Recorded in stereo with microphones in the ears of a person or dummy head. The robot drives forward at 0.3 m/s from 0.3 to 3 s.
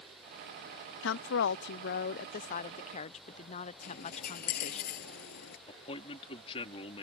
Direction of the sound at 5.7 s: 35° left (ahead or behind).